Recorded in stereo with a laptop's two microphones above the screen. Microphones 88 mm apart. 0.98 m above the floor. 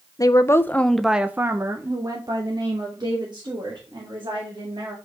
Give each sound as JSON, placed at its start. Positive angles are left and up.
{"t": 0.2, "sound": "a woman speaking", "side_deg": 40, "distance_m": 0.6}